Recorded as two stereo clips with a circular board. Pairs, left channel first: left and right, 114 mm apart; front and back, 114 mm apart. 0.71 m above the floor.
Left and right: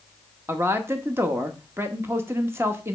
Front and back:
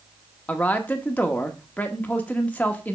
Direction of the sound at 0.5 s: 60° right.